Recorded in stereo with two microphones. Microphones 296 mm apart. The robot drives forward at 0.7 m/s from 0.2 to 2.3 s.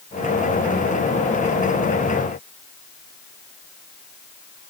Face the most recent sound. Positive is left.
No sound to turn to.